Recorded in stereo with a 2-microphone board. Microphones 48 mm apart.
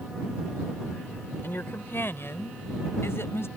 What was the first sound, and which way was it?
A woman speaking, 55° left (ahead or behind).